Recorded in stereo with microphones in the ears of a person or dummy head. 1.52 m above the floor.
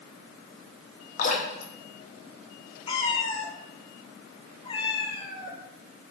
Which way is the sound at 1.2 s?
45° left (ahead or behind).